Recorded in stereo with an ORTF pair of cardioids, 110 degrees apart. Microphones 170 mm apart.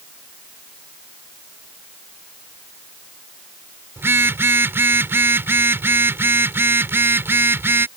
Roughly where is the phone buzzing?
Ahead.